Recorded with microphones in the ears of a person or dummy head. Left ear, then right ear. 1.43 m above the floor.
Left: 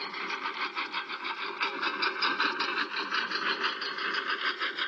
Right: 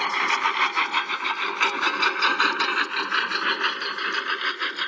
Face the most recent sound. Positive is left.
turn(degrees=-5)  # may be behind; listen again after turning